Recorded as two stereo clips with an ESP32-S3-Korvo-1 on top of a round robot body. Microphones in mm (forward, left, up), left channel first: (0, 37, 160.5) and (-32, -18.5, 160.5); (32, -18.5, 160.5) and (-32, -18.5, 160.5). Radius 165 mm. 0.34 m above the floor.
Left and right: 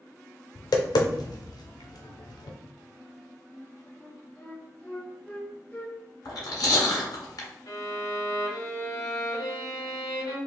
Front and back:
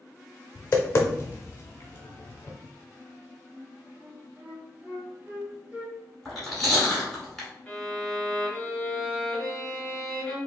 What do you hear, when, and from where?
0.6 s tapping: 55° left, 0.5 m
3.5 s a flute: 120° left, 1.4 m
6.2 s chewing: 90° left, 1.4 m
7.7 s a violin: 75° left, 1.3 m